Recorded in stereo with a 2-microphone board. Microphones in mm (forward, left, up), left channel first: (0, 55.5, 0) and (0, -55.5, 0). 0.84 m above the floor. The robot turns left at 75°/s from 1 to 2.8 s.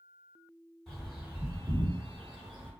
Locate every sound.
0.9 s a bird: 5° left (ahead or behind), 1.2 m; by 2.7 s 55° right (ahead or behind), 1.2 m